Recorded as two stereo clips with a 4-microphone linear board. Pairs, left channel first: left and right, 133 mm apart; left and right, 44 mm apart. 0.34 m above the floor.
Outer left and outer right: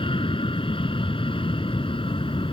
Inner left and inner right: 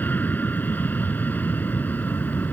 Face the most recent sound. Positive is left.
turn(degrees=40)  # may be behind; listen again after turning